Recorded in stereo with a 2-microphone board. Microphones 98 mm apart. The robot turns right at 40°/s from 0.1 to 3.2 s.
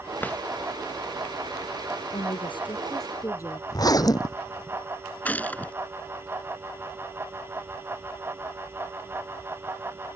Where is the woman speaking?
105° left; by 3.6 s 145° left.